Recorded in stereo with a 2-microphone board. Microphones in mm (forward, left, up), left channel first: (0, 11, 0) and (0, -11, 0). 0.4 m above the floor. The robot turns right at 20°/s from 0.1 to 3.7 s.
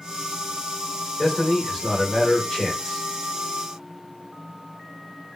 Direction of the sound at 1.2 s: 75° left.